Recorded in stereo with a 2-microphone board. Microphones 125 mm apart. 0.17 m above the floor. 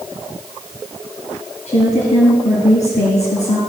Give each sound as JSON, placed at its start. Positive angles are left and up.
{"t": 1.7, "sound": "a woman speaking", "side_deg": 65, "distance_m": 2.5}